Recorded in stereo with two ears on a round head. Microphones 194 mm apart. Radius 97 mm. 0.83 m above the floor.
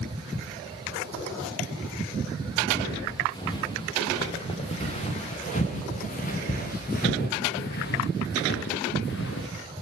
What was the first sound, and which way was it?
Footsteps, 15° left (ahead or behind).